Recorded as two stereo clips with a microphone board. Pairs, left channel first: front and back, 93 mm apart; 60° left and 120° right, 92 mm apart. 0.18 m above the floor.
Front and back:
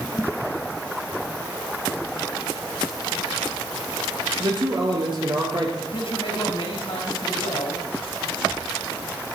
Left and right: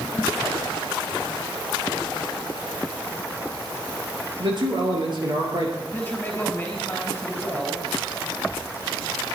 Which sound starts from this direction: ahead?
A man speaking, at 5.8 s.